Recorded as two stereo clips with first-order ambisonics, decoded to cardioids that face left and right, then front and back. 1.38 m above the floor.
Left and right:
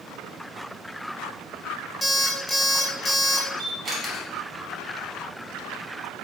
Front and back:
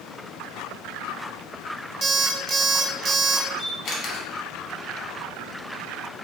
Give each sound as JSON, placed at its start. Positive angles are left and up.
{"t": 2.0, "sound": "an alarm clock", "azimuth_deg": 180, "distance_m": 0.5}
{"t": 3.6, "sound": "a camera shutter", "azimuth_deg": -15, "distance_m": 0.9}